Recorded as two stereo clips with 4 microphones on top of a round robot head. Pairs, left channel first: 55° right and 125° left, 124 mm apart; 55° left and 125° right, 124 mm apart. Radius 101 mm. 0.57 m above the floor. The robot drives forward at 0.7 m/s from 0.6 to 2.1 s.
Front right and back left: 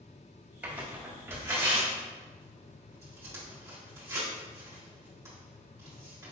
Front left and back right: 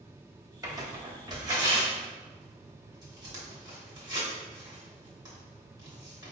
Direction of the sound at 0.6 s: 165° right.